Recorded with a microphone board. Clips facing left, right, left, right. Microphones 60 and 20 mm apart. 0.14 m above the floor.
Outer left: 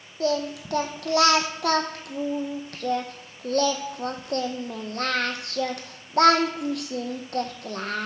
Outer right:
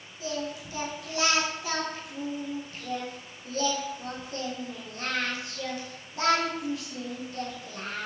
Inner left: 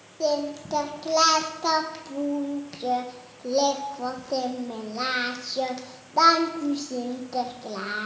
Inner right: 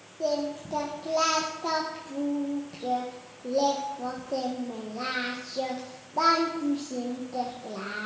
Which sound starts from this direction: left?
Singing, at 0.2 s.